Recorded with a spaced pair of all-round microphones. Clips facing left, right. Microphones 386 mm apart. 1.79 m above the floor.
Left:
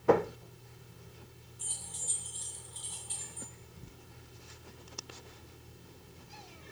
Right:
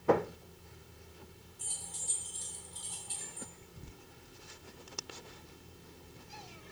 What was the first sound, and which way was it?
Keys jangling, 55° right (ahead or behind).